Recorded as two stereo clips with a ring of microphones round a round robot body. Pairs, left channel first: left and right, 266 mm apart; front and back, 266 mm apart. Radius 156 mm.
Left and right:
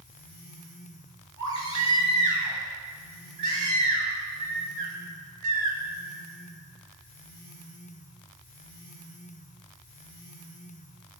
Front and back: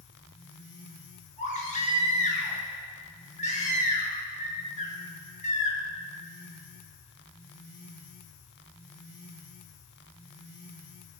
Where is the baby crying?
65° right, 5 m.